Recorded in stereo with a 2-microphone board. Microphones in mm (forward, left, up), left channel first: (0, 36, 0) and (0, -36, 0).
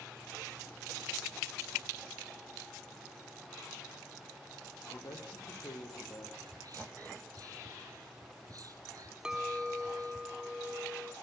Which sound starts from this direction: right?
Whispering, at 6.5 s.